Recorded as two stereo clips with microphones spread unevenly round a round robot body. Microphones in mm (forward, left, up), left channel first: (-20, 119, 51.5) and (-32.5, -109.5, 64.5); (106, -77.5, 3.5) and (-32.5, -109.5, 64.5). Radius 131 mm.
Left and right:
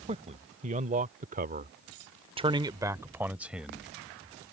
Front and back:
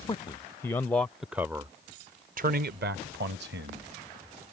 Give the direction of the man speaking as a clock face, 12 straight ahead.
1 o'clock.